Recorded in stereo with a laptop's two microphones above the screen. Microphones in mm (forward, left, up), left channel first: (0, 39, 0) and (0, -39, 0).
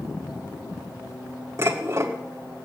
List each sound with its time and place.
1.6 s dishes clattering: 40° right (ahead or behind), 1.8 m